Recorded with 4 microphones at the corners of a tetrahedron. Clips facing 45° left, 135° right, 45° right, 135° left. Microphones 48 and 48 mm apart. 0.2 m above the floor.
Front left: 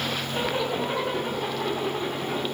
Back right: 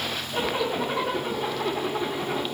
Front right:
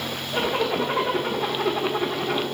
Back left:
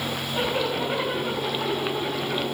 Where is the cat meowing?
I don't hear a cat meowing.